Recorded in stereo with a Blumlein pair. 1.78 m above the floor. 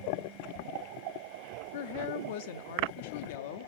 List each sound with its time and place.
1.7 s a woman speaking: 50° left, 0.7 m